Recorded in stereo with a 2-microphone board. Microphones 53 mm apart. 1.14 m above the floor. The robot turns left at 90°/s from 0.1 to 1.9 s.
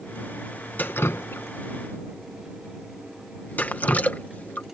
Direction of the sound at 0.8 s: 30° left (ahead or behind).